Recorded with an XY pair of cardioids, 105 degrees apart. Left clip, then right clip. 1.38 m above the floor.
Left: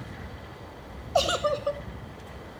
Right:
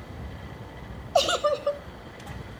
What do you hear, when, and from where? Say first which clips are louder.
1.1 s a giggle: right 2 dB; 15° right, 0.9 m